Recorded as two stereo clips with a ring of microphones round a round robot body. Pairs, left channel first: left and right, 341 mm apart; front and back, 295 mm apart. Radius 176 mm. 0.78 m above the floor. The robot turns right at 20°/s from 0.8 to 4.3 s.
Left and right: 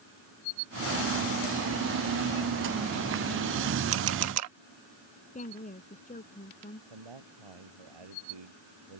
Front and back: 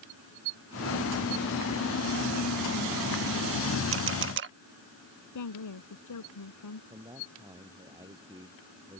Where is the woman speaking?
20° left.